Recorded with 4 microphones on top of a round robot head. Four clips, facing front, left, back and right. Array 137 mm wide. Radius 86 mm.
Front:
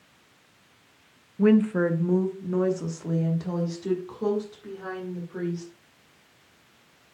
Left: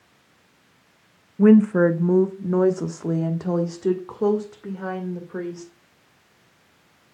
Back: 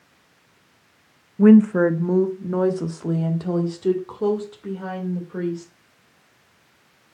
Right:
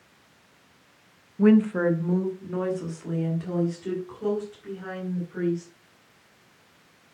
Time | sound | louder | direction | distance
1.4 | a woman speaking | left 5 dB, back 7 dB | 140° left | 0.8 m